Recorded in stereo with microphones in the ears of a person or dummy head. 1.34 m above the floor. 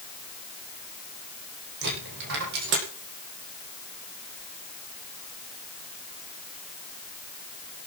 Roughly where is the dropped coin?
Right.